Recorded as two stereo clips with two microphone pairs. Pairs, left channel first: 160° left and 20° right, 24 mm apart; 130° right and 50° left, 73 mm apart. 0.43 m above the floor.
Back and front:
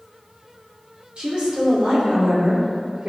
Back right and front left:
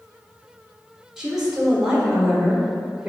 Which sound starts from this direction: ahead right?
A woman speaking, at 1.2 s.